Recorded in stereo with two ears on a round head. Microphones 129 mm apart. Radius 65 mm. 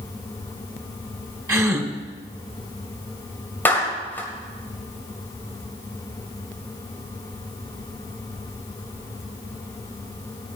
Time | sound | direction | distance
1.5 | a gasp | 20° right (ahead or behind) | 1.1 m
3.6 | a clap | 15° left (ahead or behind) | 2 m